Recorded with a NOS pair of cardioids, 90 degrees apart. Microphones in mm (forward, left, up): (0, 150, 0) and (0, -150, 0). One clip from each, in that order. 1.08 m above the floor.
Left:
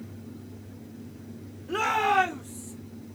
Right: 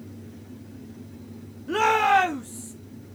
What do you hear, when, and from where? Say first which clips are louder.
1.7 s a shout: right 5 dB; 55° right, 1.4 m; by 2.7 s 80° right, 2.5 m